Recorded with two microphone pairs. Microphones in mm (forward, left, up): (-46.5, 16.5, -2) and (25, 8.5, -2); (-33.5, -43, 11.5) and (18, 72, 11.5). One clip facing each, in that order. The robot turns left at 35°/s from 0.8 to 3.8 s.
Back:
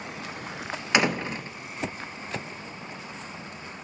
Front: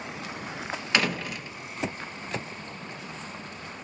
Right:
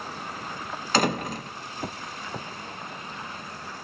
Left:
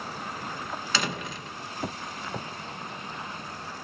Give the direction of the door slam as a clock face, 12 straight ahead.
4 o'clock.